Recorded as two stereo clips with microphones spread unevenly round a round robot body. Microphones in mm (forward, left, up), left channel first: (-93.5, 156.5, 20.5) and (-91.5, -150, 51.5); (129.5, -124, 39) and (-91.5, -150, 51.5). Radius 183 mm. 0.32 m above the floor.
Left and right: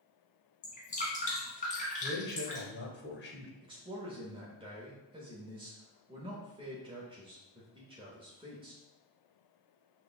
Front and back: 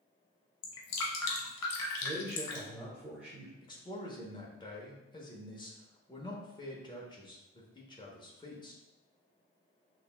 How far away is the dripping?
About 0.8 m.